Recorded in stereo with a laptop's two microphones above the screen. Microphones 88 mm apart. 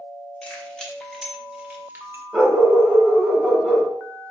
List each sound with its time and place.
0.4 s keys jangling: 15° left (ahead or behind), 1.5 m; by 2.2 s 35° right (ahead or behind), 0.9 m
2.3 s a dog barking: 5° left (ahead or behind), 1.9 m